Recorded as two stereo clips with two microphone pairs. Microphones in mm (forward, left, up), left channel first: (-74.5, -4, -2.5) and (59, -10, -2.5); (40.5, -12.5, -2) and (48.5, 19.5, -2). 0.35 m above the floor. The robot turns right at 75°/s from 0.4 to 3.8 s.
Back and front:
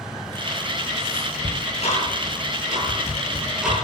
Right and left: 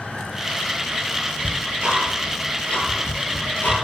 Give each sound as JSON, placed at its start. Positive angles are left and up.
{"t": 1.4, "sound": "ticking", "azimuth_deg": 105, "distance_m": 8.5}